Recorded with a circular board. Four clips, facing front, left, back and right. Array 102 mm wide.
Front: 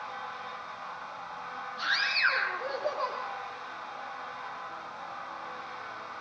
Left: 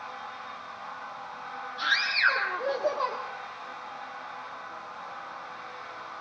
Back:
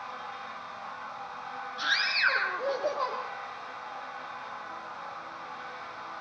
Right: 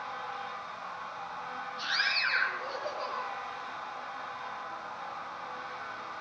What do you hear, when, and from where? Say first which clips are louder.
1.8 s a scream: left 7 dB, back 1 dB; 135° left, 4.5 m; by 3.2 s 125° left, 4.5 m